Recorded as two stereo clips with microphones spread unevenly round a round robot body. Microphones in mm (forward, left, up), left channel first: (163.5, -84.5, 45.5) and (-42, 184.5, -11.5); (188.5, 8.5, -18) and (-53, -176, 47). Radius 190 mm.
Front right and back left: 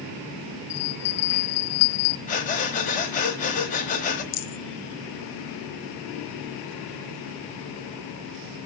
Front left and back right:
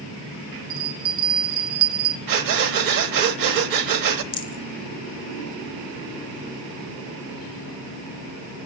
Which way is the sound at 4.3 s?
25° right.